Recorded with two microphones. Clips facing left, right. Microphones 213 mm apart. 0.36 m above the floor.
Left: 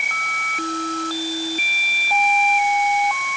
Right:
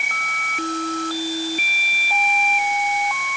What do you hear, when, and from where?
Only background noise.